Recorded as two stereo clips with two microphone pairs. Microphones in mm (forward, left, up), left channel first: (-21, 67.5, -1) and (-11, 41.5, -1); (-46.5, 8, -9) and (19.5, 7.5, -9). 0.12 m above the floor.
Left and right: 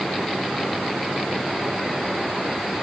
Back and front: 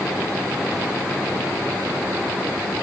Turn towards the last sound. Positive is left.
No sound to turn to.